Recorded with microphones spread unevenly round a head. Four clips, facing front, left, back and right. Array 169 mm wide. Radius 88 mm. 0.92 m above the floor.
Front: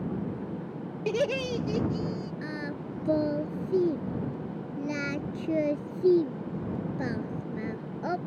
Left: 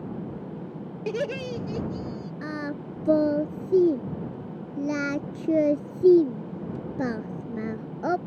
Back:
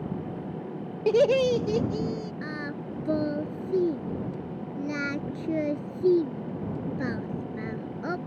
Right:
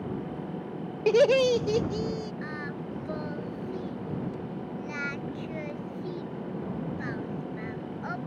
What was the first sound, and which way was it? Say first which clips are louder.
Laughter: right 9 dB, back 8 dB; 125° right.